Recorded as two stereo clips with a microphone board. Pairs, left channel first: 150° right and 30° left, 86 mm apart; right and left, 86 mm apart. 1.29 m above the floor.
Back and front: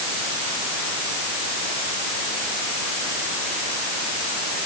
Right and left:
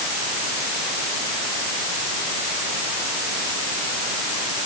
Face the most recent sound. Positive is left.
No sound to turn to.